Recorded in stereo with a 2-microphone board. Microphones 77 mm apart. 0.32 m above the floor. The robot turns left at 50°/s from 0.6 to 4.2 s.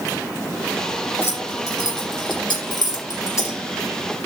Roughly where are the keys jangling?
Left.